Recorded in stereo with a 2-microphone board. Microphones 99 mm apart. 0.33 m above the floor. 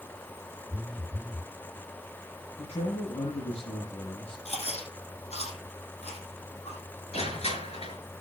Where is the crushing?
75° left (ahead or behind), 6 m.